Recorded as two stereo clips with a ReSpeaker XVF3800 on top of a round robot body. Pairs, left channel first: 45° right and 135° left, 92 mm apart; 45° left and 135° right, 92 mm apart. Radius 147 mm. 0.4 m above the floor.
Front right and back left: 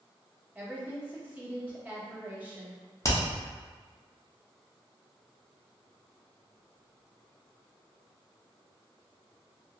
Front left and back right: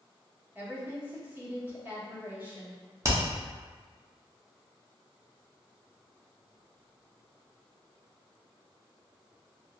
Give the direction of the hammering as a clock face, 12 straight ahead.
3 o'clock.